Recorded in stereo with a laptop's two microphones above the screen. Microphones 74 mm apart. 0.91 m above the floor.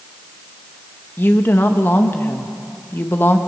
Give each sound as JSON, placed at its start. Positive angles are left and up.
{"t": 1.2, "sound": "a woman speaking", "side_deg": 30, "distance_m": 1.2}